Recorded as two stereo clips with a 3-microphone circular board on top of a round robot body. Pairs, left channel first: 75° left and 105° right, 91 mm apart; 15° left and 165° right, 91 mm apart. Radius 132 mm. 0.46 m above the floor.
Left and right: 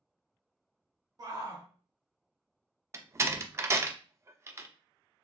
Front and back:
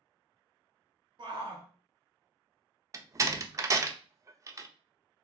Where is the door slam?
140° right, 0.6 m.